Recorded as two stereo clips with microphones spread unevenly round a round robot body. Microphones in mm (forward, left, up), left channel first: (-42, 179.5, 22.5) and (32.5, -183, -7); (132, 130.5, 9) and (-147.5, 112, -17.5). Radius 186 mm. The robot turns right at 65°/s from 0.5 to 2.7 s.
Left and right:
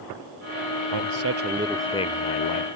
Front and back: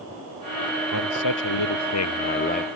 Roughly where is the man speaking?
Ahead right.